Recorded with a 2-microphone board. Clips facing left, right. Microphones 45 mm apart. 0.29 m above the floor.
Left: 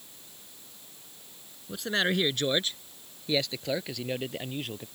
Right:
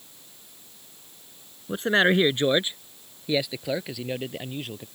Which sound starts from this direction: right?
A man speaking, at 1.7 s.